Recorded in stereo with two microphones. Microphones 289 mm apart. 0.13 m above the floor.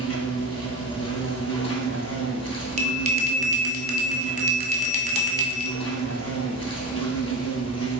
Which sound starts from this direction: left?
An insect, at 0.0 s.